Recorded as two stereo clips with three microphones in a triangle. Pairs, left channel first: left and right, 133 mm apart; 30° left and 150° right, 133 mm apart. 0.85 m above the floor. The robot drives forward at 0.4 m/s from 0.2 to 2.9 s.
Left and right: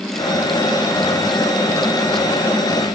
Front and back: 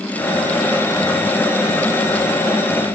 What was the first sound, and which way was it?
Only background noise.